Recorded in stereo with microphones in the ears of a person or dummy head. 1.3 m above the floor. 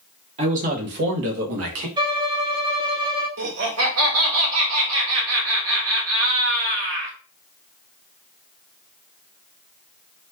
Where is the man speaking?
30° right (ahead or behind), 0.7 m; by 1.9 s 85° right, 1.2 m.